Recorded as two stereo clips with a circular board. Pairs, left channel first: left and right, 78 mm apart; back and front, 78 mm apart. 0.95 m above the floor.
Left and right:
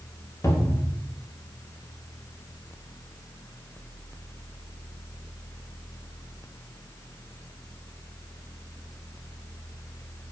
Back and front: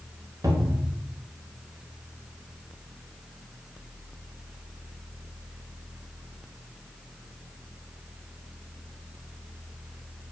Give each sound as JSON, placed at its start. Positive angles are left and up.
{"t": 0.4, "sound": "a cupboard door", "azimuth_deg": 40, "distance_m": 2.0}